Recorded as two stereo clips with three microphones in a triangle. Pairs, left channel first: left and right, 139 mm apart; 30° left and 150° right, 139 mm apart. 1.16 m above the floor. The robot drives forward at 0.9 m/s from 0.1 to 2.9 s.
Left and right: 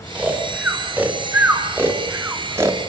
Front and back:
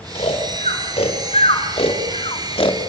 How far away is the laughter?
I don't hear laughter.